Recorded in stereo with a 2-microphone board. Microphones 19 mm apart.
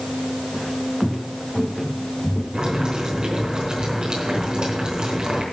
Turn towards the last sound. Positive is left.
turn(degrees=-55)  # may be behind; listen again after turning